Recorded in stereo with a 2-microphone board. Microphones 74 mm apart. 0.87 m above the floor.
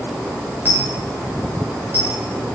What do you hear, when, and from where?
0.7 s a dropped coin: 25° right (ahead or behind), 6 m